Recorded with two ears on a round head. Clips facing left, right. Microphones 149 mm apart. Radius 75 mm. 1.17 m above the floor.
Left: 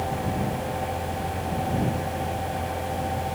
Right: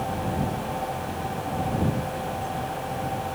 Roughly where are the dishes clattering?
I don't hear dishes clattering.